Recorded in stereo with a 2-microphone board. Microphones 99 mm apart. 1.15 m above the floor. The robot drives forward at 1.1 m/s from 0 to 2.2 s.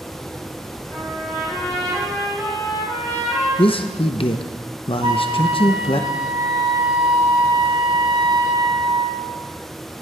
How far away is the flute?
About 3 m.